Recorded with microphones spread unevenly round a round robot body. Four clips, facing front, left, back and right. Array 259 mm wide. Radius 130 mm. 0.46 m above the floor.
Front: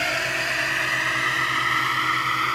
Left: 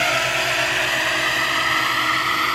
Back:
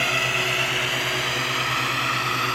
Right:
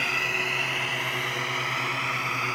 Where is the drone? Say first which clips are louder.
Left 9 dB, back 1 dB; 65° left; by 2.6 s 80° left.